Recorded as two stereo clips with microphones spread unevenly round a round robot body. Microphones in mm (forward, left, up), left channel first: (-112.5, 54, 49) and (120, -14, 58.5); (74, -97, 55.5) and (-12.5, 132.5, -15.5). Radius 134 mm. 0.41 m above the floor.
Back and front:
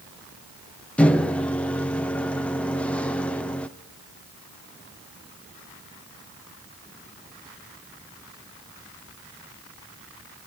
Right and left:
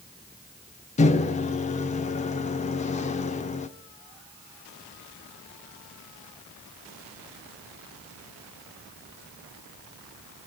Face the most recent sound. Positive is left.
turn(degrees=-130)